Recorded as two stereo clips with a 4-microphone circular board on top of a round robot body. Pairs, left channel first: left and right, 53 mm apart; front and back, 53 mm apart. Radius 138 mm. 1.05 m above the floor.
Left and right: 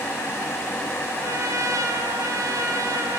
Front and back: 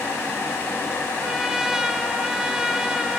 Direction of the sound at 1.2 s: 100° right.